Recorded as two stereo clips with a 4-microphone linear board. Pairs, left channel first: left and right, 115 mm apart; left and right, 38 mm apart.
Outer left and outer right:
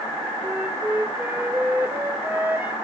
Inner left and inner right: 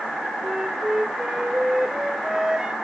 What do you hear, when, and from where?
0.4 s a flute: 20° right (ahead or behind), 2.0 m